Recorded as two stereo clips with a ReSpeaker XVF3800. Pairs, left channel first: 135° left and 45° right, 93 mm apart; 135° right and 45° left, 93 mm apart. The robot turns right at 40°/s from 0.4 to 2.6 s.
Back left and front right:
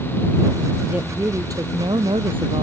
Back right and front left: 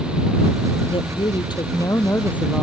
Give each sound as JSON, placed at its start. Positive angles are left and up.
{"t": 0.9, "sound": "a woman speaking", "azimuth_deg": -120}